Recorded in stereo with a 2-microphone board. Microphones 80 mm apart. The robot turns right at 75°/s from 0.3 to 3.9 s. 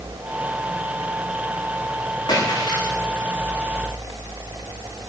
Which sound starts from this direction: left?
A splash, at 2.3 s.